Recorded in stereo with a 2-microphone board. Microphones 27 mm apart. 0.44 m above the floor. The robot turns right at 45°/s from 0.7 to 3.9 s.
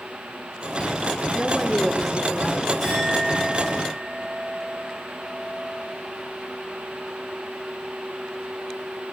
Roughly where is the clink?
Behind.